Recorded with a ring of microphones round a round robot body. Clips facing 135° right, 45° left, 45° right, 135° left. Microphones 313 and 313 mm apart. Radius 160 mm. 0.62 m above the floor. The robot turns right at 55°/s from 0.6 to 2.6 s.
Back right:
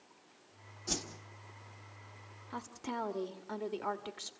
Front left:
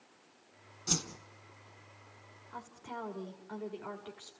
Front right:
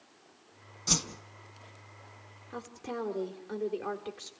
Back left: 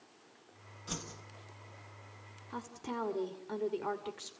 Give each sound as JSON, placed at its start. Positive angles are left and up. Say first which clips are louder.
{"t": 0.9, "sound": "a whoosh", "louder": "front left 2 dB, front right 8 dB", "azimuth_deg": -20, "distance_m": 1.2}
{"t": 2.5, "sound": "a woman speaking", "louder": "back right 6 dB, front right 2 dB", "azimuth_deg": -150, "distance_m": 2.5}